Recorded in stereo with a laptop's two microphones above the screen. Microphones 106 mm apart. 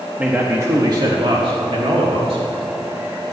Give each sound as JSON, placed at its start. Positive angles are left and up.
{"t": 0.2, "sound": "a man speaking", "side_deg": -10, "distance_m": 1.2}